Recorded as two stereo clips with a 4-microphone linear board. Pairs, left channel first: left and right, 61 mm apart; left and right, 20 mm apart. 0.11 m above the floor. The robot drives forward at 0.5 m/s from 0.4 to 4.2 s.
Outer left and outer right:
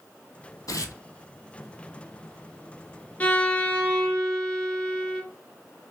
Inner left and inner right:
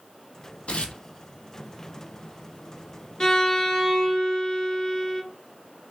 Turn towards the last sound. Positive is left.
turn(degrees=15)  # may be behind; listen again after turning